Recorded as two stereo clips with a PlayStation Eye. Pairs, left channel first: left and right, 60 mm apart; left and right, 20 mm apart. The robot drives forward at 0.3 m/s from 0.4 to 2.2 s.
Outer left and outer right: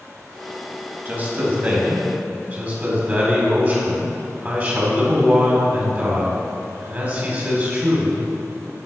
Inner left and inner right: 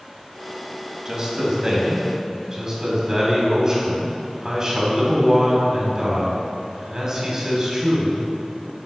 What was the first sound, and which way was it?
A man speaking, 35° right (ahead or behind).